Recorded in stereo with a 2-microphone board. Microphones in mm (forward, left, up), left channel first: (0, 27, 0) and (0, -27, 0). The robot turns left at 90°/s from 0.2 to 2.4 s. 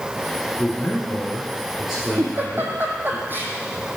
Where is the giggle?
60° right (ahead or behind), 1.2 m; by 3.5 s 40° right (ahead or behind), 1.2 m.